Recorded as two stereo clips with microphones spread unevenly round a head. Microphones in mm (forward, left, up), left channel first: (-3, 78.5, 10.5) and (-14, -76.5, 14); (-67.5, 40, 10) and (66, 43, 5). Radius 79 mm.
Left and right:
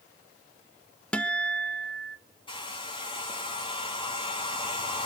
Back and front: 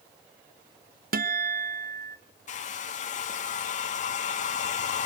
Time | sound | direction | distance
1.1 | a guitar | straight ahead | 0.8 m
2.5 | a hair dryer | 145° left | 2.5 m